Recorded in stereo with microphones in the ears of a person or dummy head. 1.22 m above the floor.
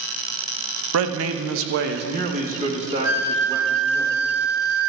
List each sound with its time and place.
0.9 s a man speaking: 80° right, 1.0 m; by 4.0 s 20° right (ahead or behind), 2.5 m
3.0 s a flute: 80° right, 2.5 m